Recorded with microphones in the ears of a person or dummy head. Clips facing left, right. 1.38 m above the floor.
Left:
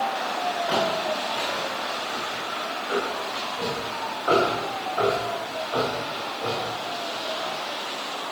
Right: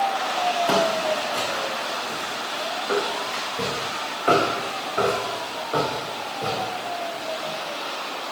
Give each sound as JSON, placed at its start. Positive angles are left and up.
{"t": 0.7, "sound": "footsteps", "side_deg": -60, "distance_m": 7.0}